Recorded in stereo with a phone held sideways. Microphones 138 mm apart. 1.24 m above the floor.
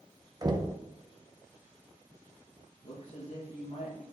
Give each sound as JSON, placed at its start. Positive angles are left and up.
{"t": 0.4, "sound": "knocking", "side_deg": -30, "distance_m": 0.8}
{"t": 2.8, "sound": "a man speaking", "side_deg": 70, "distance_m": 2.0}